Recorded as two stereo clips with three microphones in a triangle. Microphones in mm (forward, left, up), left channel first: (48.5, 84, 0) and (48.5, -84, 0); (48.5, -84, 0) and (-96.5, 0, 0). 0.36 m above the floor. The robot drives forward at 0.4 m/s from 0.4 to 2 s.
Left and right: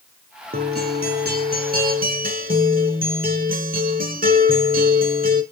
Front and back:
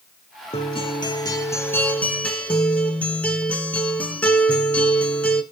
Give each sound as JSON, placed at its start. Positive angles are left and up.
{"t": 0.5, "sound": "a guitar", "azimuth_deg": -80, "distance_m": 1.1}